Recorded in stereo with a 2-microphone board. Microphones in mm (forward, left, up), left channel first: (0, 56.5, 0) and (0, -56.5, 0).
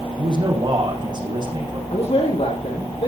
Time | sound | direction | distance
0.2 | a man speaking | 40° right (ahead or behind) | 6.5 m
1.9 | a man speaking | 65° left (ahead or behind) | 8 m